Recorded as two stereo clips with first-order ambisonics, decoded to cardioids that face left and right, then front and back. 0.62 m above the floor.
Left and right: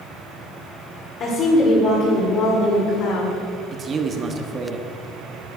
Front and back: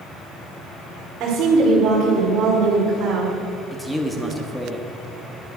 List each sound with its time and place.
1.2 s a woman speaking: 135° left, 2 m; by 3.4 s 105° left, 2.5 m
3.7 s a man speaking: 80° right, 0.9 m